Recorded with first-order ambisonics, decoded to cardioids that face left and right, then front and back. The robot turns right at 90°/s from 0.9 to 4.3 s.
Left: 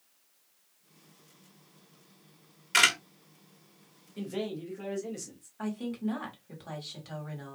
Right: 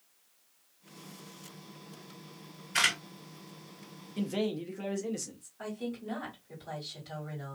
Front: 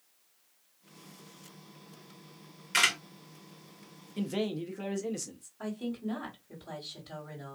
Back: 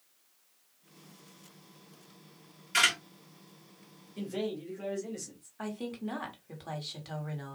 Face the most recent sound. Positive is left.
turn(degrees=155)